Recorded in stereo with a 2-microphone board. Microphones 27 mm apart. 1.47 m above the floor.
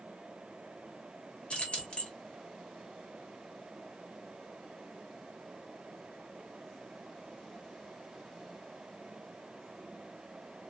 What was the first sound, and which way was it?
Keys jangling, 45° left (ahead or behind).